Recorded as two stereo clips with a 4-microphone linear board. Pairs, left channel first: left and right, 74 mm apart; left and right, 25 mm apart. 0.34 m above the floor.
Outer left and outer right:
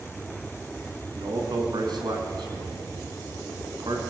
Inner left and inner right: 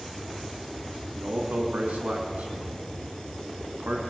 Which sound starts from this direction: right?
A man speaking, at 1.1 s.